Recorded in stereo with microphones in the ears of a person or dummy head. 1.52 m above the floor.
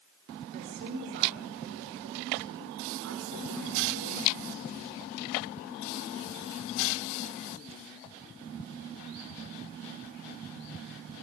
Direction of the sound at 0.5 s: 35° right (ahead or behind).